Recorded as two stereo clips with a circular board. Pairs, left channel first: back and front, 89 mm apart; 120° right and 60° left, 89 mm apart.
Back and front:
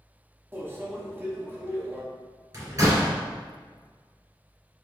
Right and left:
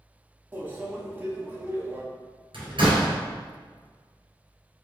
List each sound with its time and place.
0.5 s a microwave: 25° left, 0.9 m
2.5 s a door slam: 45° left, 1.9 m